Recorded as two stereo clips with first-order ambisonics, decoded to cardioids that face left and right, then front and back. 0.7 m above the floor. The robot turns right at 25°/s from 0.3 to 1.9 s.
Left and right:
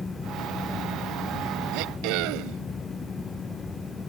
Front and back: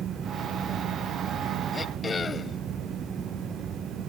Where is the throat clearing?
75° right; by 2.6 s 70° right.